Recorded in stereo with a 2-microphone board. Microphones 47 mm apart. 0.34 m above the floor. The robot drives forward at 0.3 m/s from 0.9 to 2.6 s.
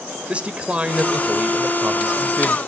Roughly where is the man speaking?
Right.